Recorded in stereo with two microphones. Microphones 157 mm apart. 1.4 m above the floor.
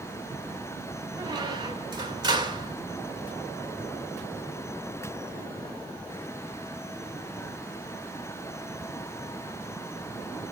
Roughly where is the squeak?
Right.